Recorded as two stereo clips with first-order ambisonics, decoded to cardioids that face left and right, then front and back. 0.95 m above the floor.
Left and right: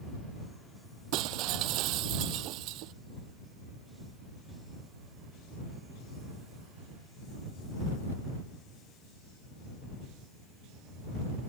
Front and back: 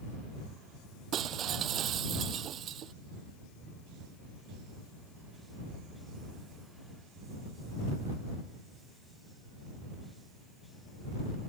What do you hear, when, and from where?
1.1 s breaking glass: 125° right